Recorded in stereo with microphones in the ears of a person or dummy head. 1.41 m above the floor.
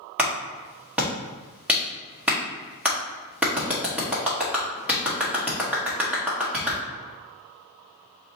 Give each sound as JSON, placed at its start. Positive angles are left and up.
{"t": 0.2, "sound": "a clap", "side_deg": -5, "distance_m": 1.1}